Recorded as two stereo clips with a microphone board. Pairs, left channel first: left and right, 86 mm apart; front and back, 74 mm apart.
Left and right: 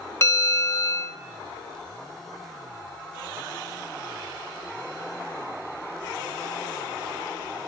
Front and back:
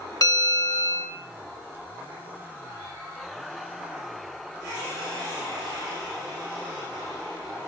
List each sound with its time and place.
0.2 s a bell: 30° left, 0.7 m